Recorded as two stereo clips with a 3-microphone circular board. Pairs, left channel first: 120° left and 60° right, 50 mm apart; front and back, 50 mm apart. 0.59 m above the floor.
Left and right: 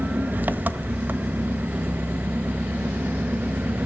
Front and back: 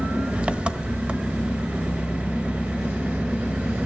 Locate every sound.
0.0 s an engine running: 110° right, 0.9 m